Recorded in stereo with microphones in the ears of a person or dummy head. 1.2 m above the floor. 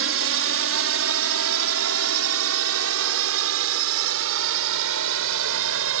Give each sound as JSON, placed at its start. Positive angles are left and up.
{"t": 0.0, "sound": "a drone", "side_deg": -60}